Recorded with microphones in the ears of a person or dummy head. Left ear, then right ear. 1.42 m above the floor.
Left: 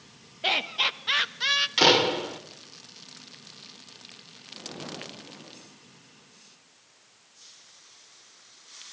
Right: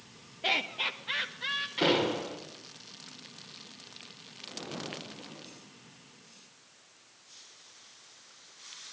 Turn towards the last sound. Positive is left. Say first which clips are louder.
# left 7 dB
turn(degrees=60)  # may be behind; listen again after turning